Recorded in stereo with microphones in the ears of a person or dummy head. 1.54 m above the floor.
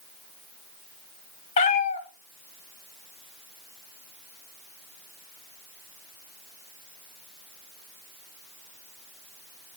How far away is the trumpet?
I don't hear a trumpet.